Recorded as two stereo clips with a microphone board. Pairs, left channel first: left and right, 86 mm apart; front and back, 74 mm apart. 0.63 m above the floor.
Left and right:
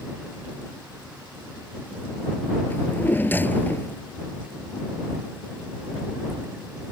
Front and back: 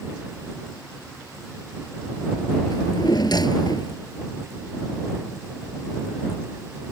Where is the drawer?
20° left.